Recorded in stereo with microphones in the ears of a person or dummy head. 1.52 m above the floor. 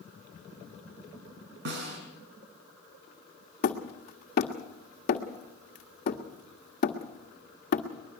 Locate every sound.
1.6 s a snare drum: 70° right (ahead or behind), 6 m
3.6 s hammering: 35° left (ahead or behind), 1.5 m